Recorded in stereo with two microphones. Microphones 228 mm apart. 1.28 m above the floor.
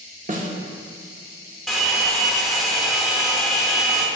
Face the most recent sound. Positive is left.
turn(degrees=0)  # may be behind; listen again after turning